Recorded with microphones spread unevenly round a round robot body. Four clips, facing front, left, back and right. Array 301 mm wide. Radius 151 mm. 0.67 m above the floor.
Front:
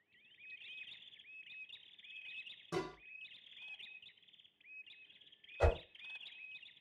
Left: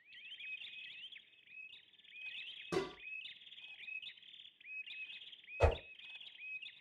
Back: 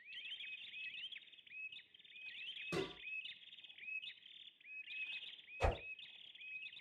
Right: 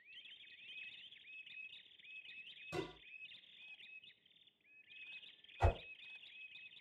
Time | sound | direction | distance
2.7 | dishes clattering | 85° left | 0.8 m
5.6 | a whoosh | 55° left | 1.3 m